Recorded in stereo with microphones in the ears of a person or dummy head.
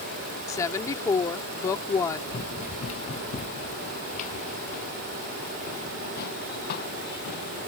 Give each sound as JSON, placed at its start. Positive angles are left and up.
{"t": 0.5, "sound": "a woman speaking", "side_deg": 20}
{"t": 2.3, "sound": "running footsteps", "side_deg": 35}